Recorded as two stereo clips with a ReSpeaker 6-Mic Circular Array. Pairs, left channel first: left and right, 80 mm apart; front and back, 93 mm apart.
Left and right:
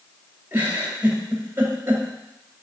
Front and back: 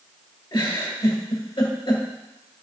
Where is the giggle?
25° right, 1.8 m.